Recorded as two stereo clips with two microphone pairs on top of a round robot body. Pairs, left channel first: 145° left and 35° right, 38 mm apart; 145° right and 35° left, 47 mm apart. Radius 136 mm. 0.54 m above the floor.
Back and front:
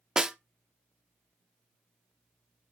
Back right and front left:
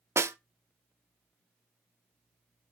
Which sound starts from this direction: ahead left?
A snare drum, at 0.2 s.